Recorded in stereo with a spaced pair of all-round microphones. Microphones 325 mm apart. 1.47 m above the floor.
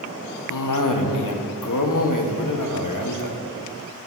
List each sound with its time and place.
0.5 s a cough: 70° left (ahead or behind), 0.8 m